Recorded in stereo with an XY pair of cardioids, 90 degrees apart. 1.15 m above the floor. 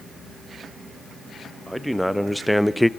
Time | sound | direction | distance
1.7 | a man speaking | straight ahead | 1.4 m